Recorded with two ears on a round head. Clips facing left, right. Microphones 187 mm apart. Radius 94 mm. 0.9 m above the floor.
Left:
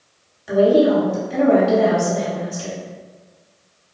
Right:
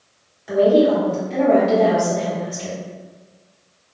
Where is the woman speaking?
10° left (ahead or behind), 1.1 m.